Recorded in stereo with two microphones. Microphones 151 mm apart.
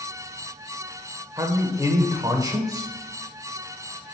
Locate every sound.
1.4 s a man speaking: 20° right (ahead or behind), 0.9 m